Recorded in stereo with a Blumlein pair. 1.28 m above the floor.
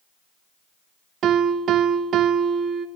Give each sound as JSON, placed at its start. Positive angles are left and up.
{"t": 1.2, "sound": "a piano", "azimuth_deg": -30, "distance_m": 0.9}